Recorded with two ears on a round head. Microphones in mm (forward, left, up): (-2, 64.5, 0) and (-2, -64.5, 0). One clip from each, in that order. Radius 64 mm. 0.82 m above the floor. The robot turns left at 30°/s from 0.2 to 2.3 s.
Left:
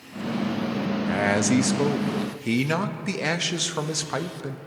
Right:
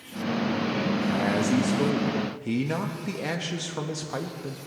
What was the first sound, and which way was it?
A man speaking, 90° left.